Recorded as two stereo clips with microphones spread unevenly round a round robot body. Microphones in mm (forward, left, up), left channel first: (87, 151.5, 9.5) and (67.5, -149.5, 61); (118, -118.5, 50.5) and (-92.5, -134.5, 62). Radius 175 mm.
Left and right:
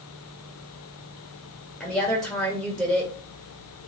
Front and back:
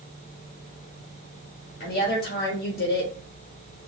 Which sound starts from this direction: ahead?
A woman speaking, at 1.8 s.